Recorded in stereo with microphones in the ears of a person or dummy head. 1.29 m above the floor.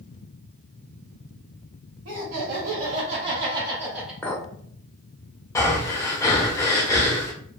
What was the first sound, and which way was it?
Laughter, 60° right (ahead or behind).